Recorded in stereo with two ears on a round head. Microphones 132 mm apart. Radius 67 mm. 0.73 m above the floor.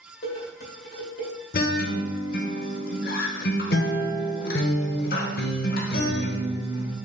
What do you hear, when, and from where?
0.2 s dishes clattering: 80° left, 2 m
1.5 s a guitar: 70° left (ahead or behind), 0.7 m